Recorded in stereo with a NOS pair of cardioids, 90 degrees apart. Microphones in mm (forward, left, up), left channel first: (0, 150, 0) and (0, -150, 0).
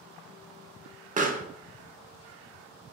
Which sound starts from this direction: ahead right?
A pop, at 1.2 s.